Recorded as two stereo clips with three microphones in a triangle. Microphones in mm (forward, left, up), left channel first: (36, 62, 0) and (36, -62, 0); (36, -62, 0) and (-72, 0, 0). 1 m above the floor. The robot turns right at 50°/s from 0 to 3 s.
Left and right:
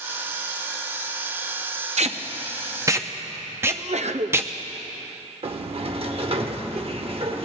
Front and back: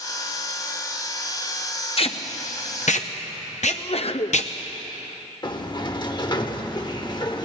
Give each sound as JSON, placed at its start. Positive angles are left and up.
{"t": 2.0, "sound": "tape being pulled", "azimuth_deg": -70, "distance_m": 0.6}
{"t": 3.7, "sound": "a sneeze", "azimuth_deg": -65, "distance_m": 0.6}
{"t": 5.4, "sound": "a sliding door", "azimuth_deg": -75, "distance_m": 0.9}